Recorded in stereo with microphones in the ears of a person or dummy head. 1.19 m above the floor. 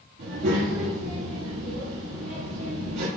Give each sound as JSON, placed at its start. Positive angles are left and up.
{"t": 0.2, "sound": "a child speaking", "side_deg": -55, "distance_m": 1.8}